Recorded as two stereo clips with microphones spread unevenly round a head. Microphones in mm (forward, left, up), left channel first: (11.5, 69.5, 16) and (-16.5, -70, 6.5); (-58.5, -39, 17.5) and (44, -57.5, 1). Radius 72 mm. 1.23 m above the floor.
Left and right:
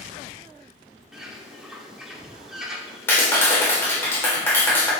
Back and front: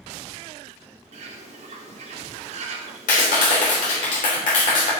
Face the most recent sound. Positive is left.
turn(degrees=155)